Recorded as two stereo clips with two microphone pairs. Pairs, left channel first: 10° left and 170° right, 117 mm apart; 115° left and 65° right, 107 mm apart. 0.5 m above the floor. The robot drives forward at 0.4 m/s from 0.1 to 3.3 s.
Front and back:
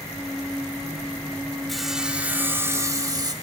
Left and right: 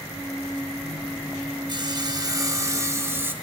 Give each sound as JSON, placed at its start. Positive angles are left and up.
{"t": 1.7, "sound": "sawing", "azimuth_deg": -75, "distance_m": 1.0}